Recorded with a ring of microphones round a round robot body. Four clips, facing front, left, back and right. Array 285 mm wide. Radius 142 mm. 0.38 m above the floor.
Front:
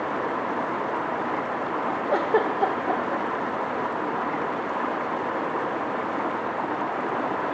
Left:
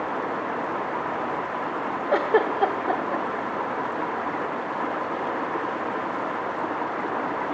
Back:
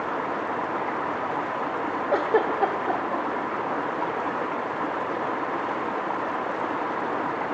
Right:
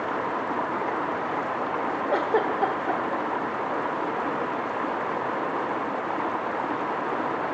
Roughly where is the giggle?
Left.